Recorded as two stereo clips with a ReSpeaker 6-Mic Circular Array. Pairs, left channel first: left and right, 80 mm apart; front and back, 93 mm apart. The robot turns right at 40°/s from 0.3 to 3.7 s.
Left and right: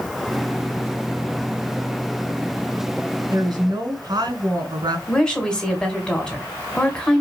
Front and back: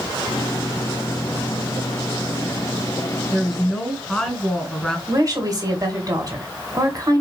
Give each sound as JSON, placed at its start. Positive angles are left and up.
{"t": 3.3, "sound": "a woman speaking", "azimuth_deg": -95, "distance_m": 2.0}
{"t": 5.1, "sound": "a woman speaking", "azimuth_deg": 165, "distance_m": 1.9}